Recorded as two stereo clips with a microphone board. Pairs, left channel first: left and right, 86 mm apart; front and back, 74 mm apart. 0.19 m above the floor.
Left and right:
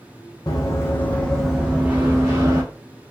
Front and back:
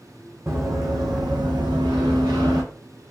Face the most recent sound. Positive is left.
turn(degrees=-145)